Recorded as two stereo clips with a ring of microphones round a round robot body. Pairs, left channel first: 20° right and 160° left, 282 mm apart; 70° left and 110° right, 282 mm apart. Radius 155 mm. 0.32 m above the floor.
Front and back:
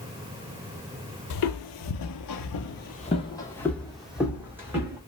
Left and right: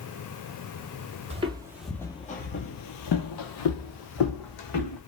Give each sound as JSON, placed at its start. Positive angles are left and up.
{"t": 1.3, "sound": "footsteps", "azimuth_deg": -45, "distance_m": 0.8}